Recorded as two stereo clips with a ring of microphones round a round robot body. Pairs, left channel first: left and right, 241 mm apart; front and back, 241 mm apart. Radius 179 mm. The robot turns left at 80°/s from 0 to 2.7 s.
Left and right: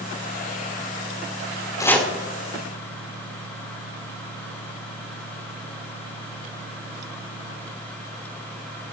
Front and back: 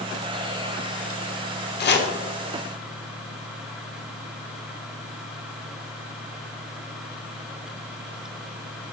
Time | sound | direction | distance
1.8 | chopping | 20° left | 1.4 m